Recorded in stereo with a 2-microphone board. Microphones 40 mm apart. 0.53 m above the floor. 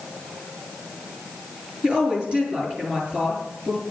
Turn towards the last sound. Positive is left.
turn(degrees=-25)  # may be behind; listen again after turning